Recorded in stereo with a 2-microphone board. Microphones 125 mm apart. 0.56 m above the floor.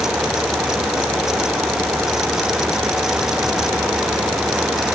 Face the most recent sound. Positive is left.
No sound to turn to.